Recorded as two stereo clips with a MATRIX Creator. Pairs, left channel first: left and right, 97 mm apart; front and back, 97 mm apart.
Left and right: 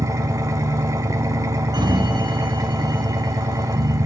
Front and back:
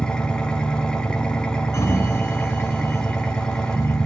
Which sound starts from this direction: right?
An engine running, at 0.0 s.